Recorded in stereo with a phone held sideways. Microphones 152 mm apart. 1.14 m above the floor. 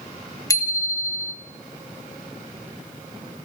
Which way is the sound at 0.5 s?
20° left (ahead or behind).